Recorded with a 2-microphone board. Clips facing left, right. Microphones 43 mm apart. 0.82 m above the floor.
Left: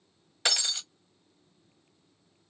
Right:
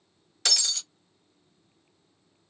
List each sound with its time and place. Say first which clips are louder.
0.5 s breaking glass: even; 20° left (ahead or behind), 0.6 m